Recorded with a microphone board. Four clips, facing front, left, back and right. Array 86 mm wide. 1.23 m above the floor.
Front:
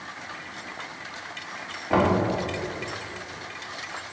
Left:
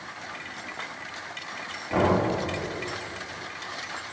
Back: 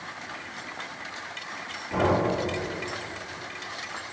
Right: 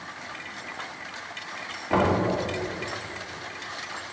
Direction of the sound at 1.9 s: 25° right.